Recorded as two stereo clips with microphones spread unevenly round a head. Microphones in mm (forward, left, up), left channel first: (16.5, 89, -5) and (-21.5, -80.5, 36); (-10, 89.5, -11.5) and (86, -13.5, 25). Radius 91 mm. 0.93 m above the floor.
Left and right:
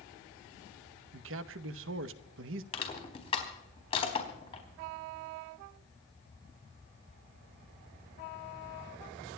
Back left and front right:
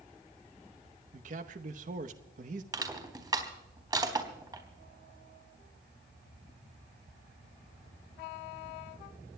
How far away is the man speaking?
About 0.8 m.